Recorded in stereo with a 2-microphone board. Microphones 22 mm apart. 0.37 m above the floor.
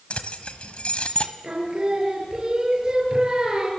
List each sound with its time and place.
0.1 s keys jangling: 65° left (ahead or behind), 1.6 m
1.4 s singing: 35° right (ahead or behind), 7 m